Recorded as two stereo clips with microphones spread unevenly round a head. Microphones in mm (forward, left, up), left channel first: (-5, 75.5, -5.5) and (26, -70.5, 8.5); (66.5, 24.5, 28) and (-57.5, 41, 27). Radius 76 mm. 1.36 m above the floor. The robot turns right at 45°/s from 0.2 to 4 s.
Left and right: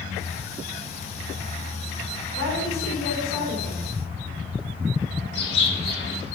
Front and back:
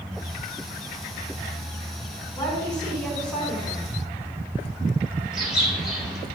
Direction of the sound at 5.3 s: 85° left.